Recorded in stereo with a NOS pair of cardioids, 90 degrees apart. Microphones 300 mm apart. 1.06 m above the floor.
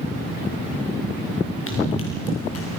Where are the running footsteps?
50° left, 4.5 m; by 2.8 s 60° left, 4.5 m.